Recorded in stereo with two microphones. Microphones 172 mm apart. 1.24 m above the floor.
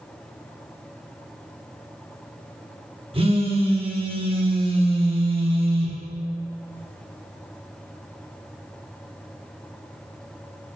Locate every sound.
3.1 s a phone buzzing: 35° right (ahead or behind), 1.0 m